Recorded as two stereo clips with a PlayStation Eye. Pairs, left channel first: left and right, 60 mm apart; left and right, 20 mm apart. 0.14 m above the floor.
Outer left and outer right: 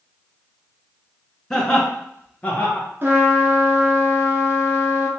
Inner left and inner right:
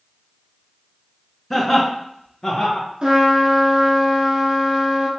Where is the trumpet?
40° right (ahead or behind), 1.1 m.